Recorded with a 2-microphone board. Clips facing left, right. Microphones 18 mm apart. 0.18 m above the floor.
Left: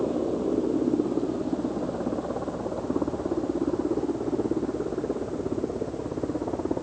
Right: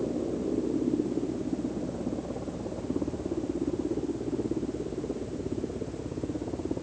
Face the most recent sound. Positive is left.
turn(degrees=55)  # may be behind; listen again after turning